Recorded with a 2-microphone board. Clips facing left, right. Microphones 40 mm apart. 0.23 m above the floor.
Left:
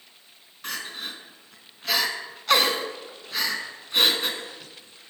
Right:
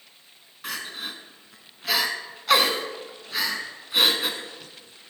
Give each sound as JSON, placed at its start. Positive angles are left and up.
{"t": 0.6, "sound": "crying", "side_deg": -5, "distance_m": 0.9}